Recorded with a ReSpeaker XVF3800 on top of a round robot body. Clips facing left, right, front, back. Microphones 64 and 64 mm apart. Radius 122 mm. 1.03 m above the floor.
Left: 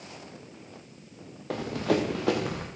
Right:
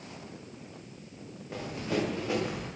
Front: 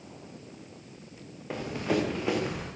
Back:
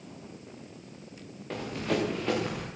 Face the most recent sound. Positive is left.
turn(degrees=85)